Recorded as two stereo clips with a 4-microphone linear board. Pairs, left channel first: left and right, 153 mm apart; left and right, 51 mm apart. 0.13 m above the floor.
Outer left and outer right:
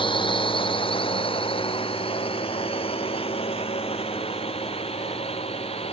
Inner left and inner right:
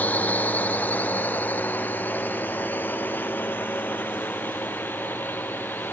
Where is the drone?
35° left (ahead or behind); by 5.9 s 40° left (ahead or behind).